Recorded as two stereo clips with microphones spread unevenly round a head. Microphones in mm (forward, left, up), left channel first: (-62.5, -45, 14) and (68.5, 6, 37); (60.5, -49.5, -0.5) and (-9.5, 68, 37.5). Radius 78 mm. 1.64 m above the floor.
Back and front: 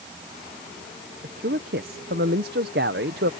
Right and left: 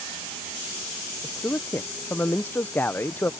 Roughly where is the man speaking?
Ahead left.